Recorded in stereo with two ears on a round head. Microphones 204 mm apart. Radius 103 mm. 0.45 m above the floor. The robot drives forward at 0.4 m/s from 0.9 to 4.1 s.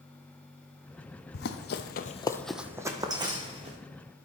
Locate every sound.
1.3 s running footsteps: 45° left (ahead or behind), 1.0 m; by 3.8 s 25° right (ahead or behind), 1.8 m